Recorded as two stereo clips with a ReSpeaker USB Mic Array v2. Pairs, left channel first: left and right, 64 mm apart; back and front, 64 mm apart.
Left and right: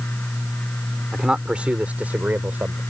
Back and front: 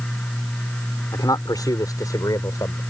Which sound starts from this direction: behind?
A man speaking, at 1.1 s.